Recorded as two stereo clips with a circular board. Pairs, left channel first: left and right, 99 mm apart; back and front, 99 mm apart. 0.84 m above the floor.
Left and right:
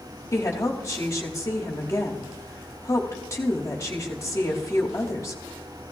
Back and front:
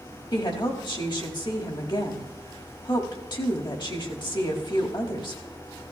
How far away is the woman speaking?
About 1.8 m.